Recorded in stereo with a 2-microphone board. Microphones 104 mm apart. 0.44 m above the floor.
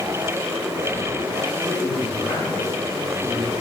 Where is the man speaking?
15° left (ahead or behind), 4 m.